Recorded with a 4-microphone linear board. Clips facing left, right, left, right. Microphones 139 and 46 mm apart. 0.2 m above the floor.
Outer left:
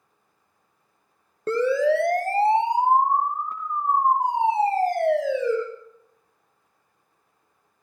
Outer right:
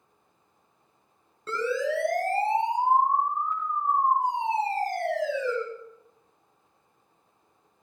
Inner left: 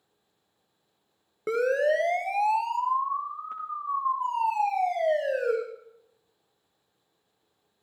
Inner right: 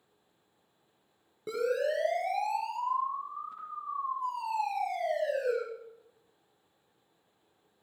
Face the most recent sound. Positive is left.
turn(degrees=65)  # may be behind; listen again after turning